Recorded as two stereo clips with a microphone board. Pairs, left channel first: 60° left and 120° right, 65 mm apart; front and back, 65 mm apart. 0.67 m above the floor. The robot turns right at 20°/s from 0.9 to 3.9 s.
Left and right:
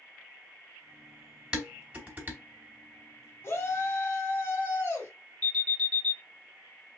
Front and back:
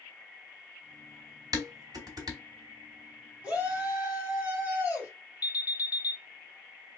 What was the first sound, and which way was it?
Dishes clattering, 165° left.